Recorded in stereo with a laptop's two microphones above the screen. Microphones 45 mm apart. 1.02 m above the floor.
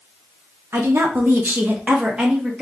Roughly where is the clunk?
No clunk in this recording.